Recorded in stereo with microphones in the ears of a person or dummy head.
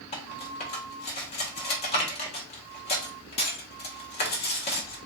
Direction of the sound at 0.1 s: 35° left (ahead or behind).